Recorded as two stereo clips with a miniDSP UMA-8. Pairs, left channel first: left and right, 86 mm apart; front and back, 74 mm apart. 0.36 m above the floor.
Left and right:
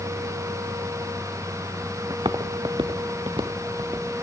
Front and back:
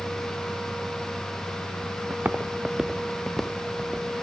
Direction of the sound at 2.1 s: 125° right.